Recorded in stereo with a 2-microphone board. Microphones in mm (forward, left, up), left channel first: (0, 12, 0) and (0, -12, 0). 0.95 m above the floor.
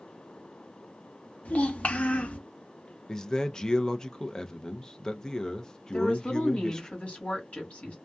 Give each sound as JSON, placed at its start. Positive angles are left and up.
{"t": 1.4, "sound": "a child speaking", "side_deg": 80, "distance_m": 0.8}
{"t": 3.1, "sound": "a man speaking", "side_deg": 30, "distance_m": 0.5}
{"t": 5.9, "sound": "a woman speaking", "side_deg": 70, "distance_m": 1.8}